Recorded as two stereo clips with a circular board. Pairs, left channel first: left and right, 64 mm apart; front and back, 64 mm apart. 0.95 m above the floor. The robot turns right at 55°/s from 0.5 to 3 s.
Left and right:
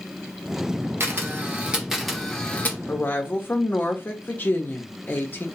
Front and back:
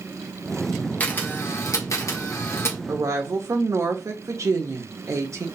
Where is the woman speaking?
140° left, 1.0 m; by 5.5 s 150° left, 1.0 m.